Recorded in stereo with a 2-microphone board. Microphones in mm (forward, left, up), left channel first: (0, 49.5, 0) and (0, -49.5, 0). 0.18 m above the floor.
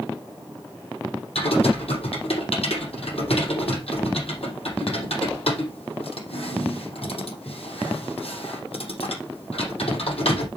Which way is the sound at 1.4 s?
80° left.